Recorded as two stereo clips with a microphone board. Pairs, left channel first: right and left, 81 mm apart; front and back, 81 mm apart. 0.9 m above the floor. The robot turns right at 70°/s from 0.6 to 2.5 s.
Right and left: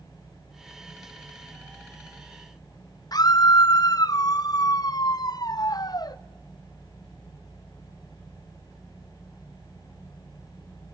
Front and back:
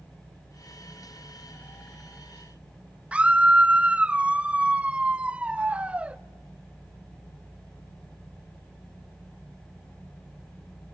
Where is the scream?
105° right, 0.7 m.